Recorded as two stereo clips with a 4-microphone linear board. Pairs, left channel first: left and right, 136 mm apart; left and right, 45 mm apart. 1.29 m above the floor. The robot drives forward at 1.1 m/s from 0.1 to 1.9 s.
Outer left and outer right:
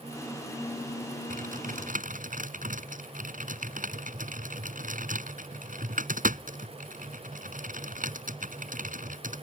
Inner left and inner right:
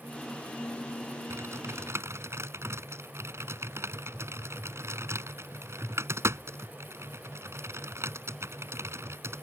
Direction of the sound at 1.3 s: 85° right.